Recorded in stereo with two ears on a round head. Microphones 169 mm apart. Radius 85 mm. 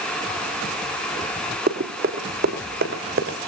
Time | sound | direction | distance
1.7 | running footsteps | 50° right (ahead or behind) | 3.5 m